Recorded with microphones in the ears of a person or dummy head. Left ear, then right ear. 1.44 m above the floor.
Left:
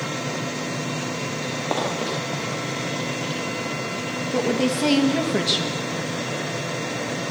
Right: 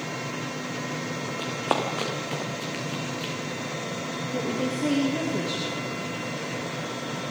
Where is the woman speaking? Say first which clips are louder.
Left 7 dB; 45° left (ahead or behind), 2.5 m.